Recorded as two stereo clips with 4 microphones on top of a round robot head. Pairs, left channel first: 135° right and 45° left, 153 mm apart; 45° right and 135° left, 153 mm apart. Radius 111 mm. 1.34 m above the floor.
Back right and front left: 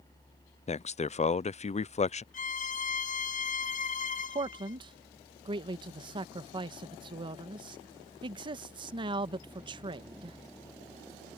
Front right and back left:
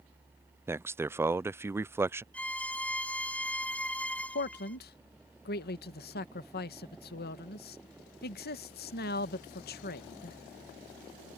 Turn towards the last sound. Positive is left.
turn(degrees=-20)